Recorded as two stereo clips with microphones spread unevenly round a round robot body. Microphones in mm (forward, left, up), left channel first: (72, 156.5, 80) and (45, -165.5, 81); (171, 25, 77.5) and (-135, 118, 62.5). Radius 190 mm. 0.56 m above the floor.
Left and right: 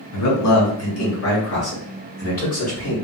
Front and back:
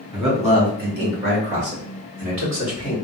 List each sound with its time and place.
0.1 s a man speaking: 95° left, 1.7 m; by 3.0 s 150° left, 2 m